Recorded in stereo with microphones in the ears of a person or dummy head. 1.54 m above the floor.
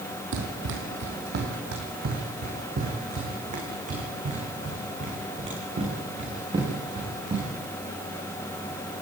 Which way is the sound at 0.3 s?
65° right (ahead or behind).